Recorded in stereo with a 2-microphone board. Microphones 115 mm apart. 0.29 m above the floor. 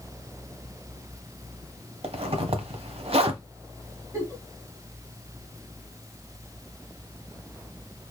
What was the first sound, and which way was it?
A zipper, 60° right (ahead or behind).